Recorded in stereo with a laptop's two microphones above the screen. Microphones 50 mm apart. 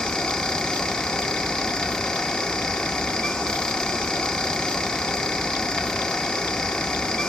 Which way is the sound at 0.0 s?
15° left (ahead or behind).